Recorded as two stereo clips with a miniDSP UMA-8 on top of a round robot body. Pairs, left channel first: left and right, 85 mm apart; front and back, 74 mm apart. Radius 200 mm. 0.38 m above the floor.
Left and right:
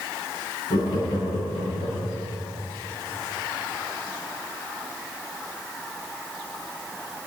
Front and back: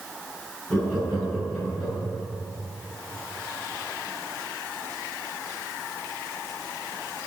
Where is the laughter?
95° left, 7 m; by 2.2 s 90° left, 8 m.